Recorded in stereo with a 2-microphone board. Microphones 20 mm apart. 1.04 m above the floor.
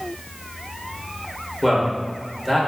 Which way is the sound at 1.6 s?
10° right (ahead or behind).